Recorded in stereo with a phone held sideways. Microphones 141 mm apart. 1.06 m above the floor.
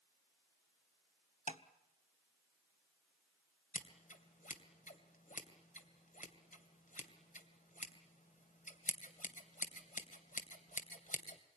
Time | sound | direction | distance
1.5 | tapping | 65° left (ahead or behind) | 1.1 m
3.7 | scissors | 80° left | 2.5 m